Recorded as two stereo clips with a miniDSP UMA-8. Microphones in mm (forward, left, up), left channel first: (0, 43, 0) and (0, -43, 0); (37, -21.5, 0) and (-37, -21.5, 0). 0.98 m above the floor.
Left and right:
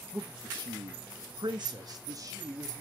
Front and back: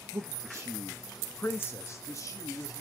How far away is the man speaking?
About 0.8 m.